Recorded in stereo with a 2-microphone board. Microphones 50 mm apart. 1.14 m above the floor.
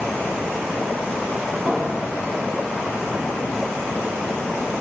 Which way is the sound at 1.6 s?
25° right (ahead or behind).